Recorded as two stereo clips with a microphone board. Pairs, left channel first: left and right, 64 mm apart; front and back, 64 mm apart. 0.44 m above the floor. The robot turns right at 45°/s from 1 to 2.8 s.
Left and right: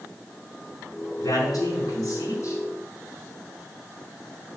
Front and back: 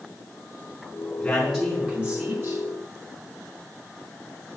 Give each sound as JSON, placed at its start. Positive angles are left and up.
{"t": 1.2, "sound": "a man speaking", "azimuth_deg": 75, "distance_m": 5.0}